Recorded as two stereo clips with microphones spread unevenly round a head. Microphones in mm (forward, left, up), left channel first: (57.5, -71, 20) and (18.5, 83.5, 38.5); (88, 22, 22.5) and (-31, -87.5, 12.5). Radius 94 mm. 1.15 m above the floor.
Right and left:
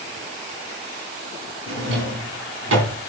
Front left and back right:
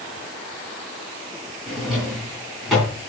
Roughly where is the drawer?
Behind left.